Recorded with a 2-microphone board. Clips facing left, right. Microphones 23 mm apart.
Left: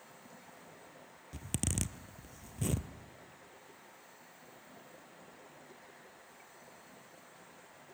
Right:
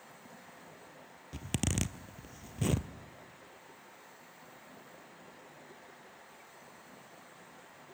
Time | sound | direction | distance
1.3 | a zipper | 20° right (ahead or behind) | 0.8 m